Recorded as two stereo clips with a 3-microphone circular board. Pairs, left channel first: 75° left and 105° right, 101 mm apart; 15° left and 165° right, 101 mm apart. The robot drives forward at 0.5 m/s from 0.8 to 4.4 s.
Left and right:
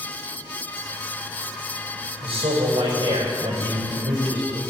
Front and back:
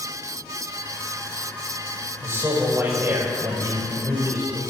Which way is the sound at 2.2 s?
105° right.